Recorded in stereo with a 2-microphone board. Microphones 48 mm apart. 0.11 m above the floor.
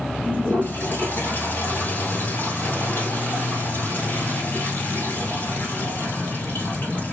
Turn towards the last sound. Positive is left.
turn(degrees=45)  # may be behind; listen again after turning